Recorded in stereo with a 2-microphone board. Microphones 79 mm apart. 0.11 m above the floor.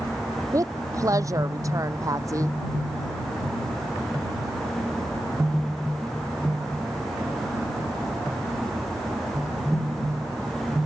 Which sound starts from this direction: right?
A woman speaking, at 0.5 s.